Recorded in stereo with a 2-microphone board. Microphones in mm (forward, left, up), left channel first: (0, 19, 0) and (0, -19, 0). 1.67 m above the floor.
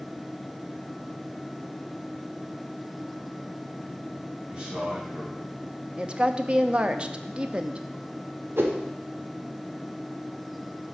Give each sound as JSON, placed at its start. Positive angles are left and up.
{"t": 4.5, "sound": "a man speaking", "side_deg": -20, "distance_m": 2.0}
{"t": 6.0, "sound": "a woman speaking", "side_deg": -30, "distance_m": 0.5}
{"t": 8.6, "sound": "a whoosh", "side_deg": -75, "distance_m": 1.0}